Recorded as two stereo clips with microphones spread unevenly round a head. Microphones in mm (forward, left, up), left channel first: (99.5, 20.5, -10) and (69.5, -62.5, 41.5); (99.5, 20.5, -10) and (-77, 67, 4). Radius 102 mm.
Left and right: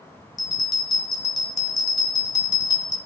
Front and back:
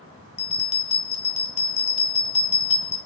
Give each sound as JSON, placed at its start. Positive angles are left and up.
{"t": 0.4, "sound": "a bell", "azimuth_deg": 0, "distance_m": 1.4}